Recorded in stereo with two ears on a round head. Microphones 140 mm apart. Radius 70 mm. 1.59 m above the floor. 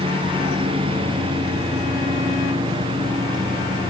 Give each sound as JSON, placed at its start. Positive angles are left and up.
{"t": 0.0, "sound": "a lawn mower", "side_deg": -35}